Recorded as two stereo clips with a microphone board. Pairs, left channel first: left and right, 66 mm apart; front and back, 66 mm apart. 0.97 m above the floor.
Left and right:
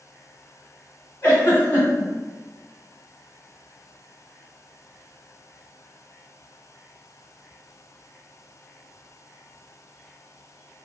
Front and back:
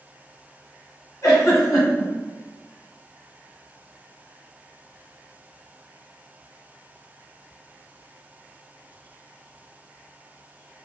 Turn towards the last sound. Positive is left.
turn(degrees=30)